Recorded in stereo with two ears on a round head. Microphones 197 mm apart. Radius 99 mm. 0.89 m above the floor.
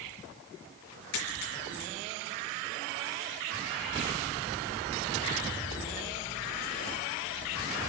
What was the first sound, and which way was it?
A dropped coin, 85° left.